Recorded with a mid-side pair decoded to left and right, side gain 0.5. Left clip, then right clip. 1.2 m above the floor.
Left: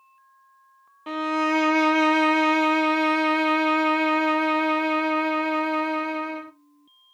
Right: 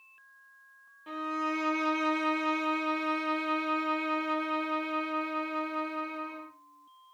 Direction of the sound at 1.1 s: 65° left.